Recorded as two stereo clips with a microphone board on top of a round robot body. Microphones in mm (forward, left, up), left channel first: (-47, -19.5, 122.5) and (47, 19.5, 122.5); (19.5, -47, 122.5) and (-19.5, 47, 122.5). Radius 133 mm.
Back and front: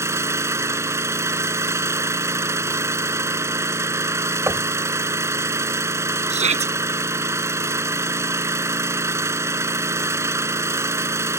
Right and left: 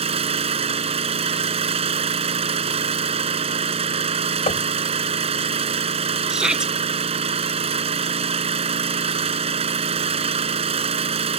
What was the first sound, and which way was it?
An engine running, 90° left.